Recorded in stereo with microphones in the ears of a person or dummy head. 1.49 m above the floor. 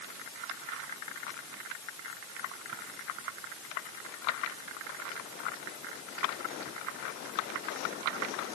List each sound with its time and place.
Only background noise.